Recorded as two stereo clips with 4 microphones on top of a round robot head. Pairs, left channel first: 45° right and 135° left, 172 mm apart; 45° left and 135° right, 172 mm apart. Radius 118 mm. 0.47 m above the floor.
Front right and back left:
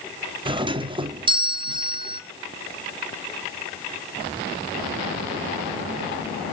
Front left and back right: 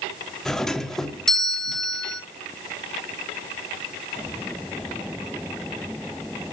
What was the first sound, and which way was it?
A doorbell, 130° left.